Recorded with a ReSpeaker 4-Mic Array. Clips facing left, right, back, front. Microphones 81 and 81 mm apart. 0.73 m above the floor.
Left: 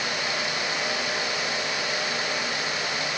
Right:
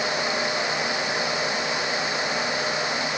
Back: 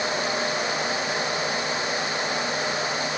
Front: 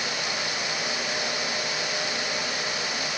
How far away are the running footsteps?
No running footsteps in this recording.